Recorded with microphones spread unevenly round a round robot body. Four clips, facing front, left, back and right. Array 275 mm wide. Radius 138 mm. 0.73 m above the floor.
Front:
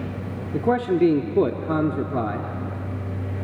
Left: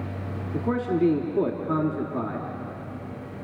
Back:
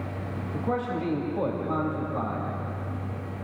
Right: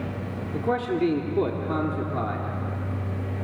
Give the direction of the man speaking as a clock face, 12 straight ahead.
12 o'clock.